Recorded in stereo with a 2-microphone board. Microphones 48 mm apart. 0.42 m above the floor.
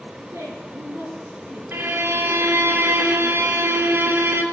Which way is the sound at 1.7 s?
50° right (ahead or behind).